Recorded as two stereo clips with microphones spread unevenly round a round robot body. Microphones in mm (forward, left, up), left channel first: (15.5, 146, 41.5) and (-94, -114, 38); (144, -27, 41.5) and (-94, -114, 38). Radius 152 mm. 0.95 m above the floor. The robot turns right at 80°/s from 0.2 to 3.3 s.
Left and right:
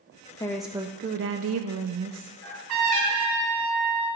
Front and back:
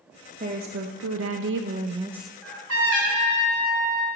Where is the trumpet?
165° right, 3 m; by 4.1 s 90° right, 3 m.